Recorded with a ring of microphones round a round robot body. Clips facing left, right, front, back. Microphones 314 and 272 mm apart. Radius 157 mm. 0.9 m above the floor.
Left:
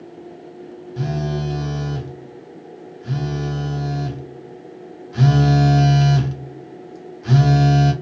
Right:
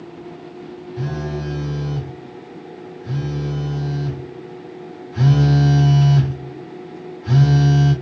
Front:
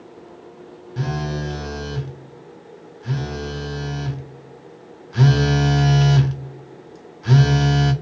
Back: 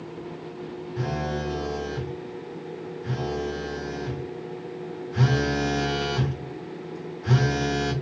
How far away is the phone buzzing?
About 0.8 m.